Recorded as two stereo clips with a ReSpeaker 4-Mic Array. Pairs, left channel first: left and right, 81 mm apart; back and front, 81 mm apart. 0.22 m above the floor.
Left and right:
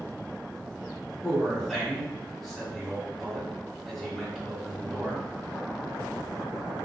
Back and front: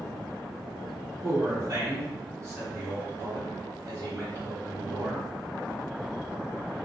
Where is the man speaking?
5° left, 1.5 m.